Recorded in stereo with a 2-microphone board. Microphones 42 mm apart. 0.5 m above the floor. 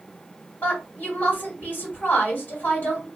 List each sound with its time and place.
0.6 s a woman speaking: 50° left (ahead or behind), 1.8 m